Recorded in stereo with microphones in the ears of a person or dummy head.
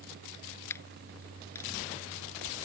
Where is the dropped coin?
15° left (ahead or behind).